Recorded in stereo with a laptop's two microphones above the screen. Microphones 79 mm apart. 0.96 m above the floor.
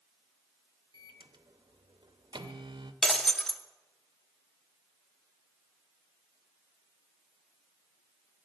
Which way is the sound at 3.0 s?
5° left (ahead or behind).